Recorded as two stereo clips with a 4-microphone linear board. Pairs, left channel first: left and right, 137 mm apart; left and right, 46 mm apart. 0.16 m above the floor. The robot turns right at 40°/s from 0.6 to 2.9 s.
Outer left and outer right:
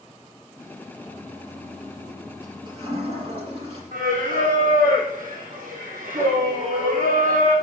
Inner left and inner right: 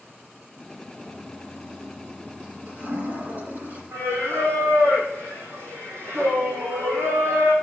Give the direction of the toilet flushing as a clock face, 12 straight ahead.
7 o'clock.